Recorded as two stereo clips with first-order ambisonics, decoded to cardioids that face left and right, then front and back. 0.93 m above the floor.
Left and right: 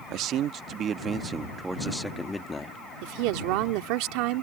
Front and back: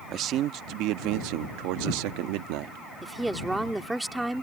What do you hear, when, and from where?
0.1 s a man speaking: 130° right; by 2.8 s 165° left
3.0 s a woman speaking: 95° right